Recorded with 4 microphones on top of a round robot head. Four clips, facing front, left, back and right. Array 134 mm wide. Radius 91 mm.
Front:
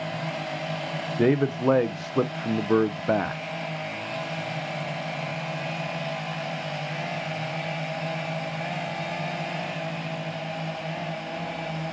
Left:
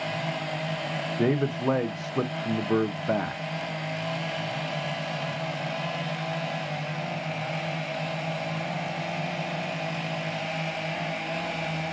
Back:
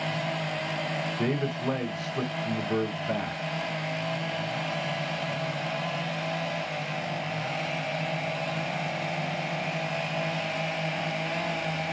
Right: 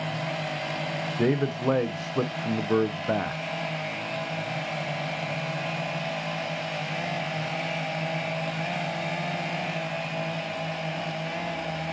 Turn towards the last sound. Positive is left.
turn(degrees=0)